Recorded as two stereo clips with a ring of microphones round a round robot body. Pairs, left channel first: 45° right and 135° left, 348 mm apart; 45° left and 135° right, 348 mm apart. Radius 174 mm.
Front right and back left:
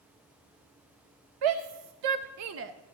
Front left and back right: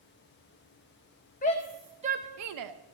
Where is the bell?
I don't hear a bell.